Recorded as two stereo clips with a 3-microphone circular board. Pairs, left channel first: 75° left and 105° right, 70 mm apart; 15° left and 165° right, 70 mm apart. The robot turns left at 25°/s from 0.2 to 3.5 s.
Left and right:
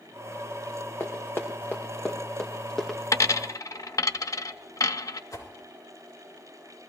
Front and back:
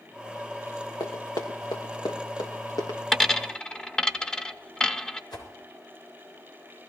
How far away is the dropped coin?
About 0.5 m.